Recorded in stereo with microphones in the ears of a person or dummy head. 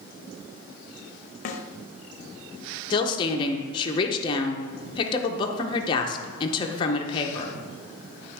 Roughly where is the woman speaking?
Left.